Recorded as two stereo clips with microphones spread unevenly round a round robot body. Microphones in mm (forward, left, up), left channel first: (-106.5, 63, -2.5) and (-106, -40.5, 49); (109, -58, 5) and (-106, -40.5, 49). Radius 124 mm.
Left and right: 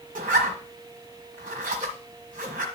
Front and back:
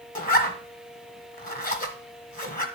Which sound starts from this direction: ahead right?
A zipper, at 0.1 s.